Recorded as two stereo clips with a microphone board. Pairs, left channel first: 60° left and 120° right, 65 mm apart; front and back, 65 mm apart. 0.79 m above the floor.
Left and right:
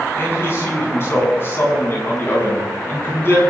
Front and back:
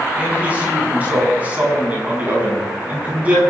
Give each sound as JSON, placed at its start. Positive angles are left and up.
{"t": 0.2, "sound": "a man speaking", "azimuth_deg": 110, "distance_m": 8.0}